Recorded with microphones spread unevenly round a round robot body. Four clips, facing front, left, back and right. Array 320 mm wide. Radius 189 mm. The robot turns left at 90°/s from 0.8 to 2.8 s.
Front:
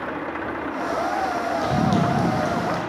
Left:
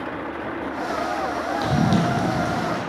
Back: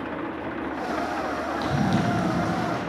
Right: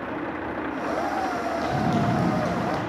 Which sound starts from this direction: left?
Running footsteps, at 1.6 s.